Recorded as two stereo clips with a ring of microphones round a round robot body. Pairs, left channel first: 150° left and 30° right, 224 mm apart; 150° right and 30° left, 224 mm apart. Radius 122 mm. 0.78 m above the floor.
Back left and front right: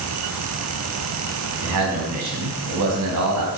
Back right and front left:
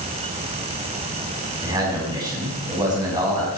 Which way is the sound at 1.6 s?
45° right.